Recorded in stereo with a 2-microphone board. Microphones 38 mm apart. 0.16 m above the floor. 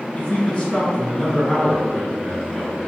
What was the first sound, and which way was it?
A man speaking, 30° left (ahead or behind).